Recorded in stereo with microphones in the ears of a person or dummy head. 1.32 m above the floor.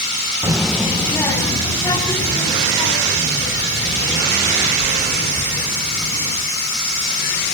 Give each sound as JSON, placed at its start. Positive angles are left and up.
{"t": 0.4, "sound": "a child speaking", "side_deg": -15, "distance_m": 0.5}